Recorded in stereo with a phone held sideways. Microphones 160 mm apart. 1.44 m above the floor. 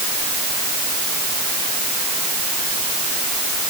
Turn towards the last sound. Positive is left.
No sound to turn to.